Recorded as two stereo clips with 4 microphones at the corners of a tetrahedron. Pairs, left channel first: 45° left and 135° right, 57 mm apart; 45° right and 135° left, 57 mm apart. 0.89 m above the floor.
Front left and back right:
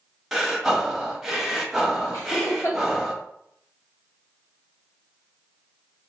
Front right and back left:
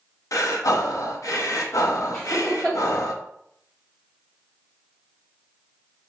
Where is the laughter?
30° left, 1.7 m.